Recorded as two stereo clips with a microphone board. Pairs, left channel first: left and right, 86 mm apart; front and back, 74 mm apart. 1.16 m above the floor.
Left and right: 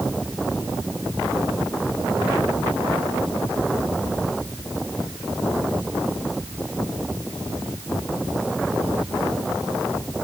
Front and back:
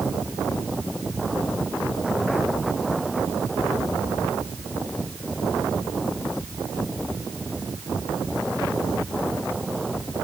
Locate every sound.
Only background noise.